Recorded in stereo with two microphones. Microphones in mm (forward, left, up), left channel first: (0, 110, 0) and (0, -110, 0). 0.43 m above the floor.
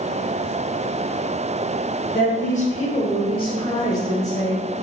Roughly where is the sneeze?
I don't hear a sneeze.